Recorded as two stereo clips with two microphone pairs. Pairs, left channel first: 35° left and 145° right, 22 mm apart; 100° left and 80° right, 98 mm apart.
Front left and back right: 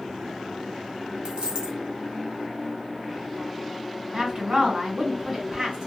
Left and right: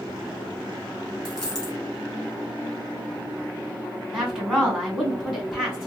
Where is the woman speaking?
160° right, 2 m.